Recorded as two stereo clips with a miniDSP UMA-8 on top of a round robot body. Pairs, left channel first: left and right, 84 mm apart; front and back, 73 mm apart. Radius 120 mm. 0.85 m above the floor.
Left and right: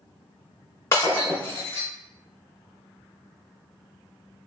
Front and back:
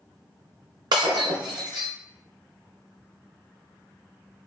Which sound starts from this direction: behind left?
Breaking glass, at 0.9 s.